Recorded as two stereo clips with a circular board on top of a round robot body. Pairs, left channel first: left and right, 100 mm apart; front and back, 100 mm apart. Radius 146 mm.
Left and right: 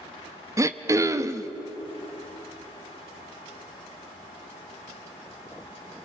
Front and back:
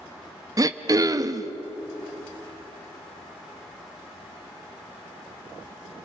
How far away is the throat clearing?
About 1.1 m.